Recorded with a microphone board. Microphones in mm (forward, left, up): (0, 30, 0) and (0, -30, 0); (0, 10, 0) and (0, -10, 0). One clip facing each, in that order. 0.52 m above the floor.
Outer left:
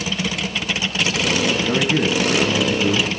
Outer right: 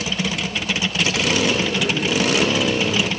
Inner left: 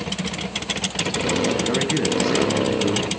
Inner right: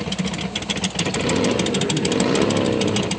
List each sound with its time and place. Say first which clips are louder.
1.6 s a man speaking: outer left 3 dB, even; 70° left (ahead or behind), 5.5 m; by 3.2 s 65° left (ahead or behind), 6 m